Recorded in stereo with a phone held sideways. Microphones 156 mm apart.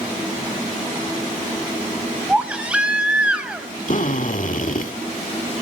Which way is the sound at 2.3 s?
10° right (ahead or behind).